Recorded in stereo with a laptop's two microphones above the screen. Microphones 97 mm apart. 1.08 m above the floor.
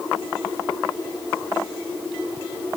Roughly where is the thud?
I don't hear a thud.